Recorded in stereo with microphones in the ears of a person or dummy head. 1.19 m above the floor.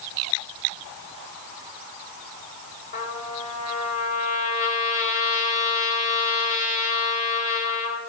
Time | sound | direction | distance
2.9 | a trumpet | 40° left (ahead or behind) | 2 m